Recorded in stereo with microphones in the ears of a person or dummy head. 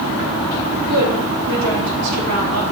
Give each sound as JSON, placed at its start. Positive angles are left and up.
{"t": 0.8, "sound": "a woman speaking", "side_deg": -80, "distance_m": 4.0}